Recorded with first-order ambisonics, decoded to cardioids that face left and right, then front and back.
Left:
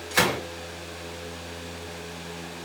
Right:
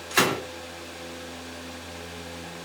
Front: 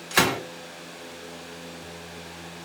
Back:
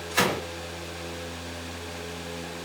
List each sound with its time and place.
0.1 s a gunshot: 5° right, 1.2 m